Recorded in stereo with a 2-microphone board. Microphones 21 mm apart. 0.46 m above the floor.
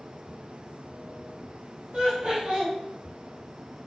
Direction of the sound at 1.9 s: 50° right (ahead or behind).